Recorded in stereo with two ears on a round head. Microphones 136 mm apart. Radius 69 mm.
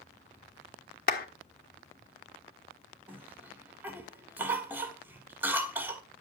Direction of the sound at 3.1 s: 15° right (ahead or behind).